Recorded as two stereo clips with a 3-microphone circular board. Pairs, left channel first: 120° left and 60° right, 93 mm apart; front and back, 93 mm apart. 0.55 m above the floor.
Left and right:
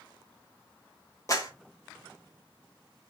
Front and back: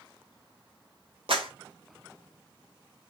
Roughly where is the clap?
Behind.